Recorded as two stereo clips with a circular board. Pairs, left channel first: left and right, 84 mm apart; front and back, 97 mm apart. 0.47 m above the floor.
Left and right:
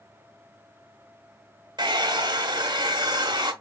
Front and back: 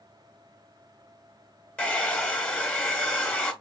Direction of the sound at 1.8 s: 75° right.